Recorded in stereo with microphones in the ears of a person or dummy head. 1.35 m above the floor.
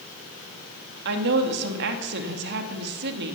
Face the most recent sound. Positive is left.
turn(degrees=-60)  # may be behind; listen again after turning